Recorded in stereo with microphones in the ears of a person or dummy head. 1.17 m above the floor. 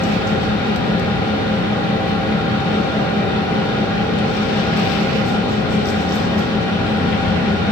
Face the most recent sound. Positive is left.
turn(degrees=20)  # may be behind; listen again after turning